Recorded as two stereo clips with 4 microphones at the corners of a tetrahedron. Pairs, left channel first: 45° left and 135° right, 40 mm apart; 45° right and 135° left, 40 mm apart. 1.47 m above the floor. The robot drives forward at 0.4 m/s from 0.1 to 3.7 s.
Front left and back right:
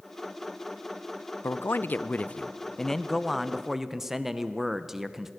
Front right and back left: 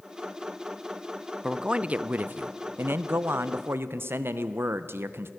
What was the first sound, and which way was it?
A man speaking, 60° left.